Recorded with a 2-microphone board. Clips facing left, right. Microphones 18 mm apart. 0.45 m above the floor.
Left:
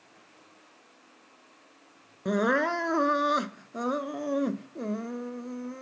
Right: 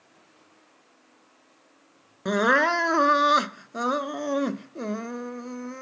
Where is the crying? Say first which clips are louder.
Right 5 dB; 45° right (ahead or behind).